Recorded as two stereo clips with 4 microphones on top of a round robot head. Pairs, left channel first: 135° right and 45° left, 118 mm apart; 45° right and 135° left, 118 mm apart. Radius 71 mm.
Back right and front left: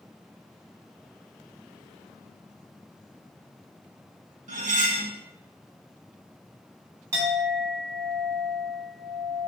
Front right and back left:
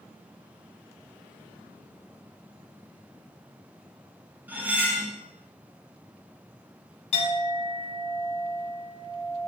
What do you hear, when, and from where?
4.5 s cutlery clinking: 60° left, 1.7 m
7.1 s a clink: 15° right, 3 m